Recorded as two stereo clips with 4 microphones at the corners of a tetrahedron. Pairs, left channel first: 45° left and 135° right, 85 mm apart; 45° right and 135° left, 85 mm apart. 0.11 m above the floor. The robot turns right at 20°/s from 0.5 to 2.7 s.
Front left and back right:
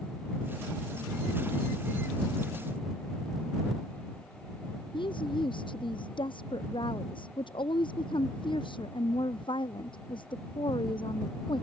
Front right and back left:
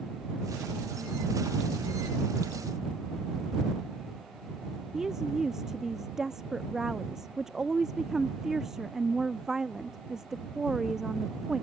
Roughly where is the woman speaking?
Ahead left.